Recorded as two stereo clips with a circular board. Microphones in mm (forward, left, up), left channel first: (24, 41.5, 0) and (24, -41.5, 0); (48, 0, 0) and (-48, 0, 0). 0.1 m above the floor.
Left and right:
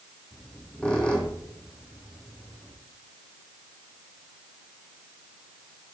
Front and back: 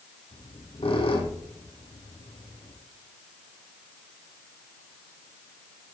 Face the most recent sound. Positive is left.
turn(degrees=15)